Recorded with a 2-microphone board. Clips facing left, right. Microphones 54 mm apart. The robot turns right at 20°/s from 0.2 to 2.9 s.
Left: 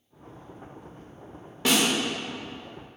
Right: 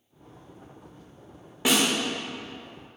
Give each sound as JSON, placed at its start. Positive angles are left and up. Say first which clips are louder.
{"t": 1.6, "sound": "a snare drum", "louder": "even", "side_deg": -15, "distance_m": 0.6}